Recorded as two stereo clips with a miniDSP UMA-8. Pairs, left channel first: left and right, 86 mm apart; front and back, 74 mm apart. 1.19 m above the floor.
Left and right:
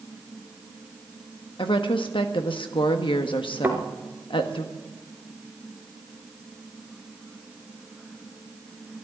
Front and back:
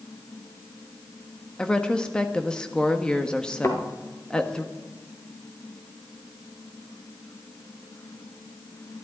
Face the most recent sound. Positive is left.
turn(degrees=-30)